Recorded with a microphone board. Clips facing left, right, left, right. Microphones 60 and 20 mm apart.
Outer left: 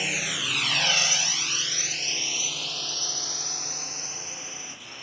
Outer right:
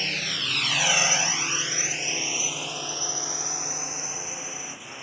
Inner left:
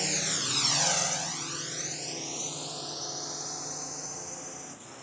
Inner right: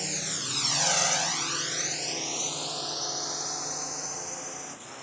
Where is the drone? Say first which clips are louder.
Outer left 1 dB, inner left 2 dB; 10° left (ahead or behind); by 5.0 s 15° right (ahead or behind).